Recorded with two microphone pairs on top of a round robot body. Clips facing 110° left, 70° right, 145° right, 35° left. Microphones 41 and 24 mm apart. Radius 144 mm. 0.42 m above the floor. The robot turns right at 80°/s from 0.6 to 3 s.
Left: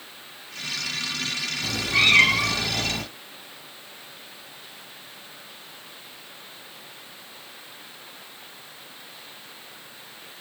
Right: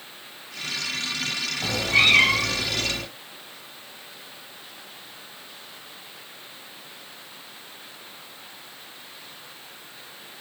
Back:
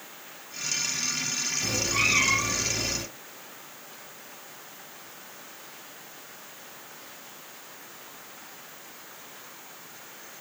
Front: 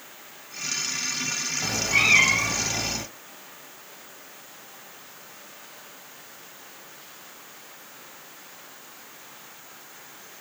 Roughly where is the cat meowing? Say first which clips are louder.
Right 2 dB, front 5 dB; ahead right.